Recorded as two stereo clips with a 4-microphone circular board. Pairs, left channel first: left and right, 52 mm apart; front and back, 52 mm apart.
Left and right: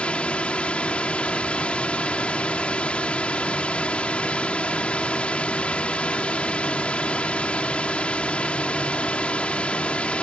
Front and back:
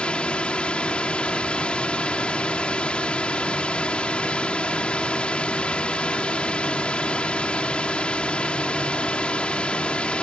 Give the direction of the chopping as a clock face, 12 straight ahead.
I don't hear chopping.